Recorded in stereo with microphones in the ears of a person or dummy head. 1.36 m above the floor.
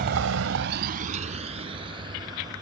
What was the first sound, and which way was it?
A vehicle, 50° right (ahead or behind).